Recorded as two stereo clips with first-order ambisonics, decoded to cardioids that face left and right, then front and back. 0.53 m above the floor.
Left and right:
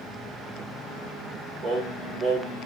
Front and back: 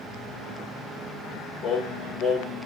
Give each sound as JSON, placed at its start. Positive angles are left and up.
{"t": 1.6, "sound": "singing", "azimuth_deg": -55, "distance_m": 1.8}